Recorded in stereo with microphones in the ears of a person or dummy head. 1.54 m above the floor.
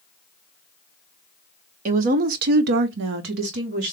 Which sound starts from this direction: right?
A woman speaking, at 1.9 s.